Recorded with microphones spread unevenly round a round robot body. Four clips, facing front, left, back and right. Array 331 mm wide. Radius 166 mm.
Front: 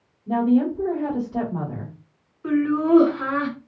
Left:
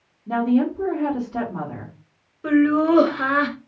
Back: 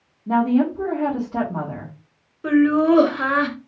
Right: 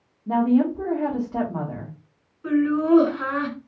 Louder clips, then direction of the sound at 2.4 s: Left 3 dB, back 4 dB; 135° left.